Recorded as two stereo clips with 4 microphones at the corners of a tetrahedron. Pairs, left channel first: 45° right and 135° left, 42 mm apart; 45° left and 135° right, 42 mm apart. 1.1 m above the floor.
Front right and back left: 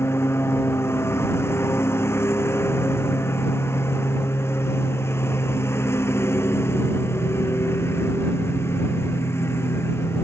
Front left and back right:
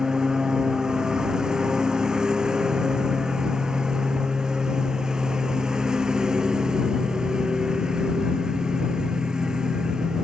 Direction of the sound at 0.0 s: 65° right.